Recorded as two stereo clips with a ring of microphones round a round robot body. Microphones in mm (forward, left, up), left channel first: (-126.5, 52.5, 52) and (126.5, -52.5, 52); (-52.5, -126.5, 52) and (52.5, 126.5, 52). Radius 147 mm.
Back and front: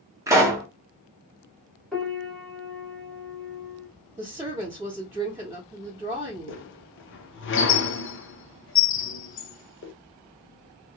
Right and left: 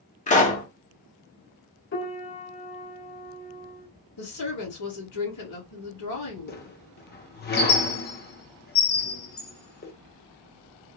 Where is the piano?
115° right, 1.7 m.